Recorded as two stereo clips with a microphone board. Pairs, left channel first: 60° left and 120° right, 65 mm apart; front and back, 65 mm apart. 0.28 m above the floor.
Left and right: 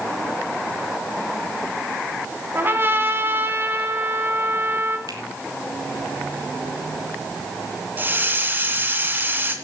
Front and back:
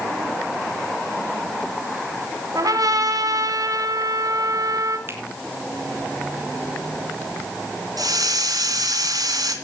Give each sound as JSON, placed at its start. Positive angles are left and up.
{"t": 2.5, "sound": "a trumpet", "azimuth_deg": -175, "distance_m": 3.0}
{"t": 5.1, "sound": "a finger snap", "azimuth_deg": -130, "distance_m": 4.0}
{"t": 8.0, "sound": "a hiss", "azimuth_deg": 180, "distance_m": 3.0}